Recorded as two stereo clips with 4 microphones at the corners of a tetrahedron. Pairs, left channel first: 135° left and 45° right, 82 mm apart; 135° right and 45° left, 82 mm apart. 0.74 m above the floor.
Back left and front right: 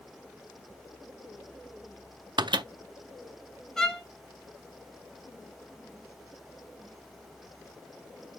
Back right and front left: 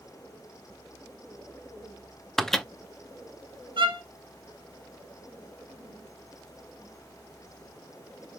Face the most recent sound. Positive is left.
turn(degrees=50)